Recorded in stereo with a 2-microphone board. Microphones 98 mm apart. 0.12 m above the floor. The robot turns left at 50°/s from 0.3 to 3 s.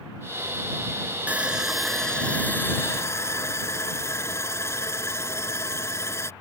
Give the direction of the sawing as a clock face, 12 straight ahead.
5 o'clock.